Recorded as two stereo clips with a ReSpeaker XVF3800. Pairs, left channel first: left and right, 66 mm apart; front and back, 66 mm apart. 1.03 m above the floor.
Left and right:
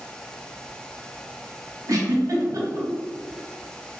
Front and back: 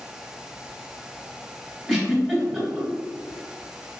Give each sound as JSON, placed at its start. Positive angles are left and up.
{"t": 1.9, "sound": "a giggle", "azimuth_deg": -95, "distance_m": 1.4}